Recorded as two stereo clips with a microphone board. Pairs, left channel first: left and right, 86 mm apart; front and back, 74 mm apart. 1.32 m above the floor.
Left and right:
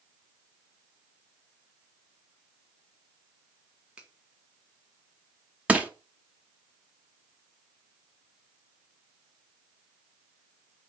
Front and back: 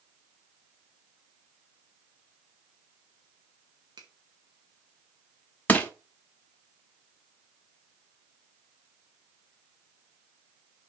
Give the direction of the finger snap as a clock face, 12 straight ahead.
6 o'clock.